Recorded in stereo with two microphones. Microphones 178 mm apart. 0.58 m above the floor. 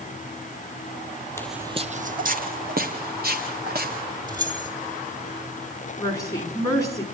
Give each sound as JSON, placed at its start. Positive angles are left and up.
{"t": 1.4, "sound": "footsteps", "side_deg": 15, "distance_m": 0.6}
{"t": 4.3, "sound": "keys jangling", "side_deg": -20, "distance_m": 2.0}
{"t": 6.0, "sound": "a woman speaking", "side_deg": 20, "distance_m": 5.5}